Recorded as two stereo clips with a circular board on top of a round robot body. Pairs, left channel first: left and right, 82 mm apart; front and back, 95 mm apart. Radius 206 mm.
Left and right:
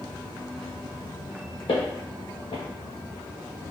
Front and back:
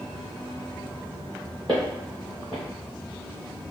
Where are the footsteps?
85° left, 0.7 m.